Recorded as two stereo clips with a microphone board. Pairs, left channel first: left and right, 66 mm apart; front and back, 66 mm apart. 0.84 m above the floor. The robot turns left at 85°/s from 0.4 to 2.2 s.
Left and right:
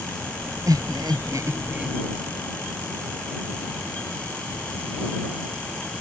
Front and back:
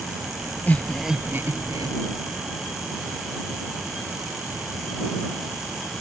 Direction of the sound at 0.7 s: 60° right.